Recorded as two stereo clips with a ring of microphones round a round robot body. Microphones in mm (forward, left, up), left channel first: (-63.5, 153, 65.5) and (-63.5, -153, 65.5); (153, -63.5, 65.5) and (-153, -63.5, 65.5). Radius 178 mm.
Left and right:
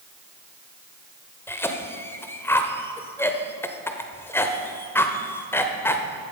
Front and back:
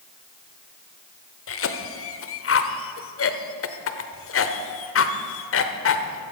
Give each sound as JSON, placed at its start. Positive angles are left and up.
{"t": 1.5, "sound": "a cough", "azimuth_deg": 10, "distance_m": 1.1}